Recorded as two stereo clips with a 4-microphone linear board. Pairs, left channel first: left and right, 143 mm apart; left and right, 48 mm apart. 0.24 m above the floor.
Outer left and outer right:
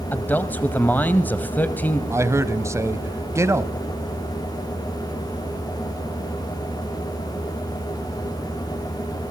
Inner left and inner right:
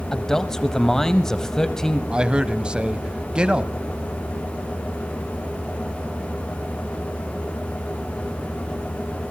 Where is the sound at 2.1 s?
20° right (ahead or behind), 1.1 m.